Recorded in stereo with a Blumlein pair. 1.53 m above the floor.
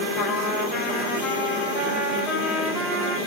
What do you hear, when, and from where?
0.2 s a trumpet: 25° left, 1.8 m